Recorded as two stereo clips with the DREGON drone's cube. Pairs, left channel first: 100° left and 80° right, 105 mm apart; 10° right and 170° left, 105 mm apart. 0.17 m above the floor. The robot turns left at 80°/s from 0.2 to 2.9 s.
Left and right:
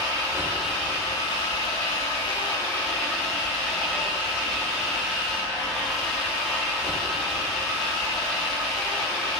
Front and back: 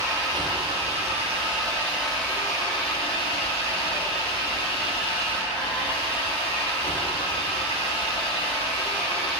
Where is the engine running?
130° right, 5 m; by 9.4 s 15° left, 5 m.